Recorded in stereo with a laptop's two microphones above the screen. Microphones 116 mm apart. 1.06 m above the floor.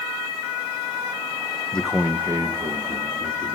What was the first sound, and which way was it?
A man speaking, 10° left (ahead or behind).